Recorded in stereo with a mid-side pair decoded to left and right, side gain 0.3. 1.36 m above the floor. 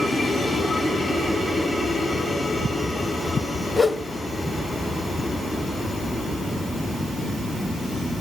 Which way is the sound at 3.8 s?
40° left.